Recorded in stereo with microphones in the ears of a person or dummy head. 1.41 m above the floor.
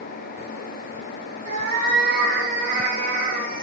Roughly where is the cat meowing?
Right.